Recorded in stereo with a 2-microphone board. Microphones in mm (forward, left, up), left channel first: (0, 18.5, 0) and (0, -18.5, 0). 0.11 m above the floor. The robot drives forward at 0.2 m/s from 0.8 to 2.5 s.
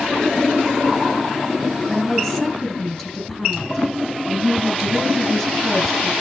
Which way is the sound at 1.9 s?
20° left (ahead or behind).